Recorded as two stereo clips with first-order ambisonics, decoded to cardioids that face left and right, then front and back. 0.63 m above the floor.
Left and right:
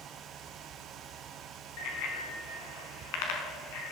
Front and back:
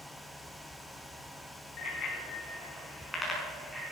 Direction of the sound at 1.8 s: 60° left.